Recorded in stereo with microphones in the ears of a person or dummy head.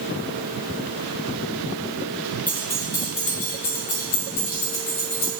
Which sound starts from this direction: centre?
Keys jangling, at 2.5 s.